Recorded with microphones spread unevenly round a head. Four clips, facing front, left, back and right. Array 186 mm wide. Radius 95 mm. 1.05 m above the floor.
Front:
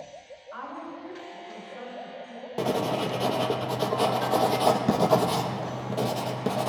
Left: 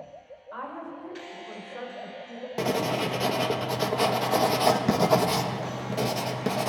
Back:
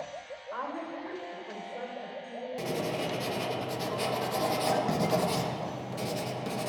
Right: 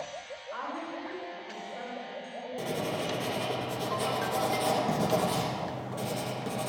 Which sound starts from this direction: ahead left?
Writing, at 2.6 s.